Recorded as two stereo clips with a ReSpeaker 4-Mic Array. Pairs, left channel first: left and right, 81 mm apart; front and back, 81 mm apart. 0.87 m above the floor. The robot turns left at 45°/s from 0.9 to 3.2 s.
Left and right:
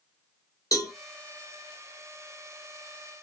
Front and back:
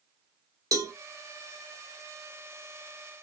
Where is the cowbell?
135° left, 1.0 m.